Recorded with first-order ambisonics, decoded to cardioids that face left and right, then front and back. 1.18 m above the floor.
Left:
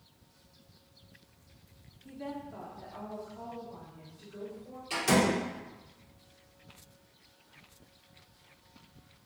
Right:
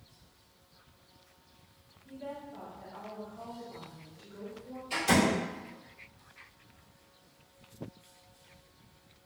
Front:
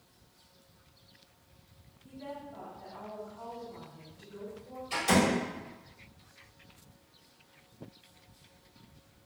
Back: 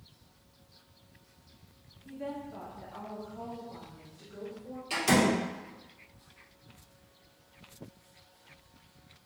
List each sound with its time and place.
2.0 s a woman speaking: 100° left, 0.6 m; by 4.8 s 170° left, 1.8 m
4.9 s a door slam: 150° left, 1.9 m